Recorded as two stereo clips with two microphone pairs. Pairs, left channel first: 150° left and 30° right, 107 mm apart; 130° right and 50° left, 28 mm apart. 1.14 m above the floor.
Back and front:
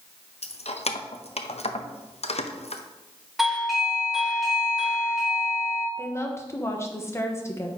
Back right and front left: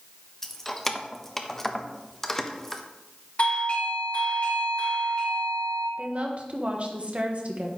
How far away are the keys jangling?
About 0.6 m.